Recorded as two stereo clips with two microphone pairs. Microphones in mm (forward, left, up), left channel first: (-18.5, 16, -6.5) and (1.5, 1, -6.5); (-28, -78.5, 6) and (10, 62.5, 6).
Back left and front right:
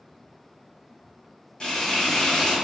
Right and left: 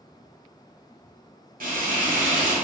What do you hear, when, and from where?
1.6 s frying: 90° left, 2.0 m